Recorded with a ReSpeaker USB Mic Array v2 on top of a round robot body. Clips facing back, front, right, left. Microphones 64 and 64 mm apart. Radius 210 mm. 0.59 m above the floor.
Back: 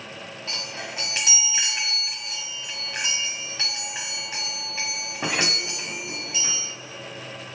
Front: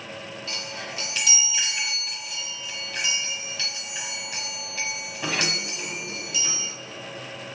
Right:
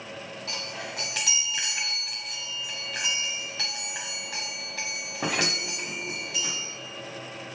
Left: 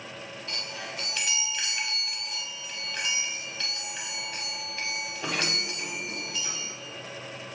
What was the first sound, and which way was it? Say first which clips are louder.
A chime: back 2 dB, right 1 dB; 120° right.